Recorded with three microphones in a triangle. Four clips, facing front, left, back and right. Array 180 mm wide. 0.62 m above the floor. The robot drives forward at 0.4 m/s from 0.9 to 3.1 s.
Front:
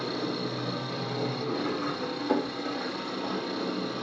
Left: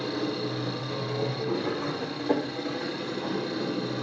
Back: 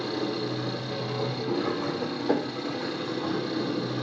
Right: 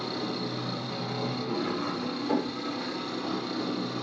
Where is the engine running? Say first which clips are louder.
Left 3 dB, back 2 dB; 155° left, 9 m.